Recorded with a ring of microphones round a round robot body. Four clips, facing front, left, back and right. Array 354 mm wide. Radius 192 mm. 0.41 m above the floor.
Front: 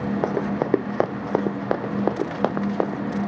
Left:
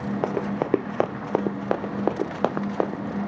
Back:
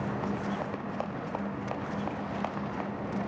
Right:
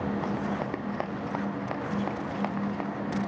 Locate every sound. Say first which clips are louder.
0.2 s running footsteps: left 5 dB, front 9 dB; 35° left; by 3.2 s 45° left